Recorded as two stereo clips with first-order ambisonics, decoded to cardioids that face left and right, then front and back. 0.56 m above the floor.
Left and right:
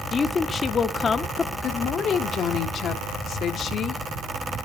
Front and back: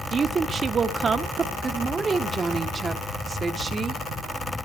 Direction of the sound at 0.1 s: 135° left.